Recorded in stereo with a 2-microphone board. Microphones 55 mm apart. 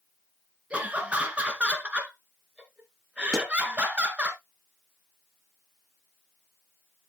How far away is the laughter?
About 1.8 m.